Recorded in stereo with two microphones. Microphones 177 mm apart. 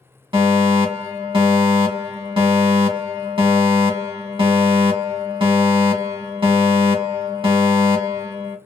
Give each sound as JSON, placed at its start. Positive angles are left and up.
{"t": 0.3, "sound": "a fire alarm", "side_deg": -30, "distance_m": 0.8}